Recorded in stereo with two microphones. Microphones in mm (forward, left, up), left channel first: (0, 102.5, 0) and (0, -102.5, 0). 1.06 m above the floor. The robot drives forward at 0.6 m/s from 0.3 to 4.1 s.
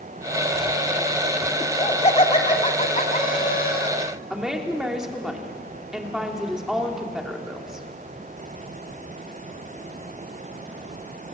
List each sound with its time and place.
1.6 s laughter: 30° left (ahead or behind), 3 m; by 3.9 s 55° left (ahead or behind), 2.0 m
4.3 s a woman speaking: centre (ahead or behind), 3 m